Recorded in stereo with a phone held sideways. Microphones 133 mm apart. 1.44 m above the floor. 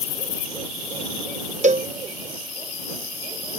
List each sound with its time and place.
1.6 s a cowbell: 60° right (ahead or behind)